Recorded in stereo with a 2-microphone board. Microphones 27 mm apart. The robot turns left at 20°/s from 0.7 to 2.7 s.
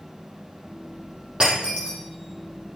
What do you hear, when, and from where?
1.4 s breaking glass: 35° right (ahead or behind), 7 m; by 2.0 s 50° right (ahead or behind), 7 m